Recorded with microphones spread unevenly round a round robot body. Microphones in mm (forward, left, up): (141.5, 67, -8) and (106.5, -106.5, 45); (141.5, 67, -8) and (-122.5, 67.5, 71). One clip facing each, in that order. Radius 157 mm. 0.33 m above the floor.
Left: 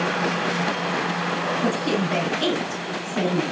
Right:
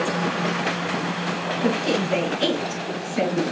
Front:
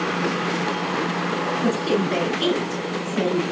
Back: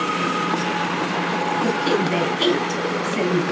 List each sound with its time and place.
1.6 s a woman speaking: 155° left, 4 m